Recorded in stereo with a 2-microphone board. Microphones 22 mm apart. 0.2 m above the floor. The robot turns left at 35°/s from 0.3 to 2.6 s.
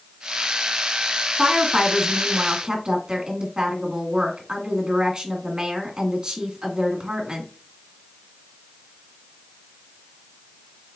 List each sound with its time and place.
1.4 s a woman speaking: 30° right, 1.5 m; by 7.5 s 70° right, 1.5 m